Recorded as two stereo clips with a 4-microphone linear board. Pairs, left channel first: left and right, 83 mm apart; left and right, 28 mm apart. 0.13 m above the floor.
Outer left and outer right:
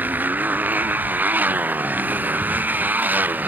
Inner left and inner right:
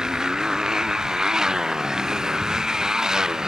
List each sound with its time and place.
0.0 s a motorcycle: 20° right (ahead or behind)